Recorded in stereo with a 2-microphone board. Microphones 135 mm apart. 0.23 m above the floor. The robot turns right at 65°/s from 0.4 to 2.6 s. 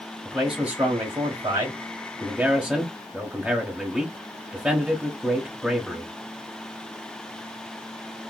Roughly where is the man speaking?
Centre.